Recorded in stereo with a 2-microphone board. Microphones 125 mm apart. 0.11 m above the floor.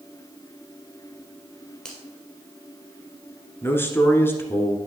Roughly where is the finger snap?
Centre.